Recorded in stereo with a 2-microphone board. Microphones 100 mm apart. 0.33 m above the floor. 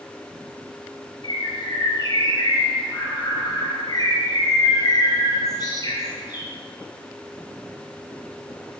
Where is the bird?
45° left (ahead or behind), 2.5 m.